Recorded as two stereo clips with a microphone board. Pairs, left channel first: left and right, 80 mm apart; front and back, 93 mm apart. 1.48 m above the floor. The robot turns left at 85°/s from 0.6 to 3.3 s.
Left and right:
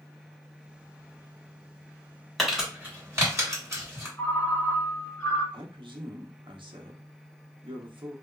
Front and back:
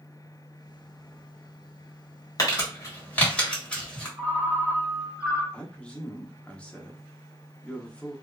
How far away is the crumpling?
About 1.5 m.